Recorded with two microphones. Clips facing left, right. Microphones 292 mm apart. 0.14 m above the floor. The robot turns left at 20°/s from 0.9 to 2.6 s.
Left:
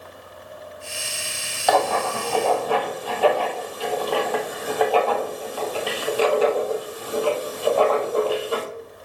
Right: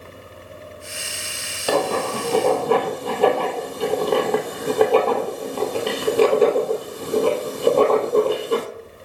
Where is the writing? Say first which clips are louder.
Right 1 dB; 35° right (ahead or behind), 1.4 m; by 8.7 s 50° right (ahead or behind), 1.4 m.